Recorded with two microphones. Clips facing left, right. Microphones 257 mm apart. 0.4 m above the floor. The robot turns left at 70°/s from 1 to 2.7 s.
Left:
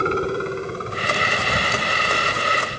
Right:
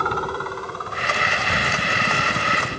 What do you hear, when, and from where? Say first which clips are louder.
0.0 s a helicopter: left 6 dB; 30° left; by 2.8 s 90° right